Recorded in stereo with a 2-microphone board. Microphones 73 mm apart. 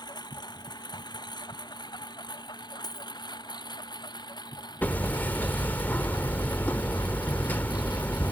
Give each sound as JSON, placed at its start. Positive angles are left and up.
{"t": 0.0, "sound": "a lawn mower", "side_deg": 80}
{"t": 2.8, "sound": "a dropped coin", "side_deg": 65}
{"t": 4.8, "sound": "hammering", "side_deg": 25}